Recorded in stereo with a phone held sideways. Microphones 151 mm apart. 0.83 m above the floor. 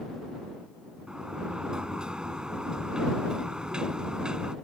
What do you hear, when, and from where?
1.1 s a sliding door: 5° right (ahead or behind)